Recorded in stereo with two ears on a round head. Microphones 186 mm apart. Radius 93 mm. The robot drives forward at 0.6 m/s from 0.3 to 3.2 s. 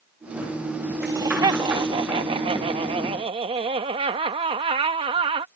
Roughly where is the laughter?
Centre.